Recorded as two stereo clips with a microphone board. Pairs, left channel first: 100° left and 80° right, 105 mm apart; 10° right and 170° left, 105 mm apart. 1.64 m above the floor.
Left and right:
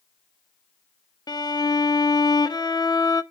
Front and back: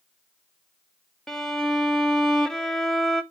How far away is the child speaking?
I don't hear a child speaking.